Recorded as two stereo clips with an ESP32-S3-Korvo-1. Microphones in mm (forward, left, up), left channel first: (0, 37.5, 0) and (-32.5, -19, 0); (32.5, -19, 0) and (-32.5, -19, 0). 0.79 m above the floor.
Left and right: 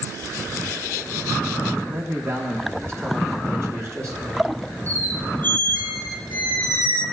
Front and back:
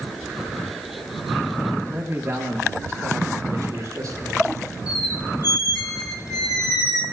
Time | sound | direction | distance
1.9 | a man speaking | 140° right | 1.2 m
4.9 | a squeak | straight ahead | 1.9 m